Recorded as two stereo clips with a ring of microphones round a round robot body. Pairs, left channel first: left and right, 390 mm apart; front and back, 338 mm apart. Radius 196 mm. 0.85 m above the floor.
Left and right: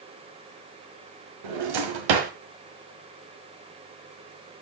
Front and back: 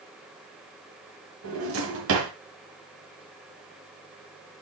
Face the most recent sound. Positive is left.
turn(degrees=-120)